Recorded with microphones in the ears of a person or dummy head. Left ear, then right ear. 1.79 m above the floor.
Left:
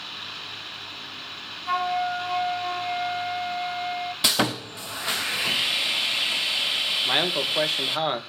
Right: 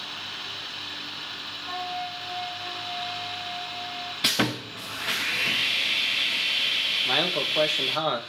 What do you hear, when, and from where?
1.7 s a flute: 70° left (ahead or behind), 2.5 m
4.2 s sawing: 15° left (ahead or behind), 0.6 m
7.0 s a man speaking: 15° left (ahead or behind), 2 m